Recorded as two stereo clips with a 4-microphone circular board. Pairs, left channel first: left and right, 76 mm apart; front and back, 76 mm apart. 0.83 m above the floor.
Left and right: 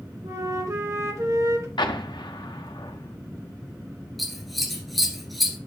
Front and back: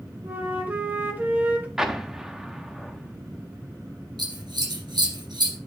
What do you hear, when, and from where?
0.2 s a flute: 120° right, 1.2 m
1.8 s an explosion: 100° left, 0.8 m
4.2 s scissors: straight behind, 2 m